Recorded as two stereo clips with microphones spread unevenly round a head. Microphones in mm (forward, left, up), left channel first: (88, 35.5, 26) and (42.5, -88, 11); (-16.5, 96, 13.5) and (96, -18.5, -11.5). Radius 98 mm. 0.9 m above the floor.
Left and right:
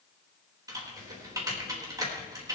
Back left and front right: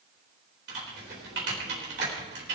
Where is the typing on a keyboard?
50° right, 4 m.